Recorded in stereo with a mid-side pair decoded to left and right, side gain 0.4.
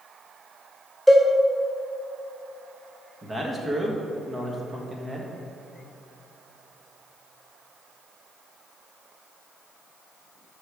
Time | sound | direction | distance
1.1 | a cowbell | 10° right | 2 m
3.2 | a man speaking | 30° right | 1.2 m